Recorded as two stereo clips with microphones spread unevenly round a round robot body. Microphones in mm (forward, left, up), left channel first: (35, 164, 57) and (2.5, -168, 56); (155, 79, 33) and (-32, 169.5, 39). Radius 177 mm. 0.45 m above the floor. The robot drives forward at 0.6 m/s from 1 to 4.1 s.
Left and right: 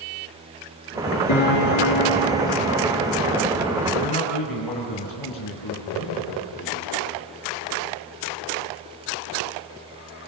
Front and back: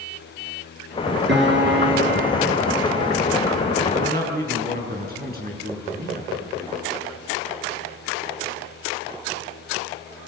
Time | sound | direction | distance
1.3 | a piano | 125° left | 6 m
3.9 | a man speaking | 110° left | 6 m